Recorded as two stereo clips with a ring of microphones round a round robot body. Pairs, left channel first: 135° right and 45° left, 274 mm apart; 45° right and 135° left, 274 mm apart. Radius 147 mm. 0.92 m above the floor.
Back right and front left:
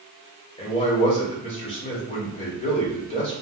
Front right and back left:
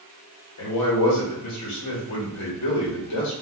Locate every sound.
0.6 s a man speaking: 65° right, 1.9 m